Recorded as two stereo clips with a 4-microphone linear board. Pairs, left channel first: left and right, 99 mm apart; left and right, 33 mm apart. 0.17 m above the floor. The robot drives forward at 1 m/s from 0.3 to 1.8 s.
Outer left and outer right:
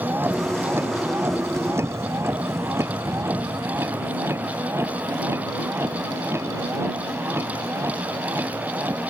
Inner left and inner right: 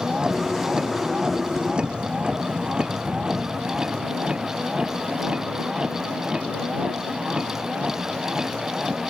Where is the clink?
No clink in this recording.